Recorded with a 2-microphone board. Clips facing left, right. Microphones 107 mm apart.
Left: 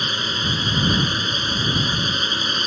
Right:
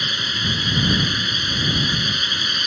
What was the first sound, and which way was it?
A drone, 35° left (ahead or behind).